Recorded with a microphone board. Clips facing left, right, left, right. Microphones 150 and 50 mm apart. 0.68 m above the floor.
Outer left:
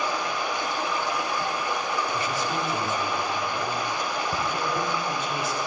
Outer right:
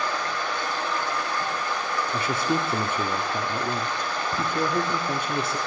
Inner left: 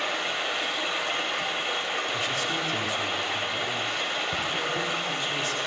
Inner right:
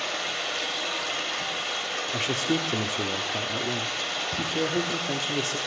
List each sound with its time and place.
0.0 s running water: 15° left (ahead or behind), 3 m
2.1 s a man speaking: 55° right (ahead or behind), 1.4 m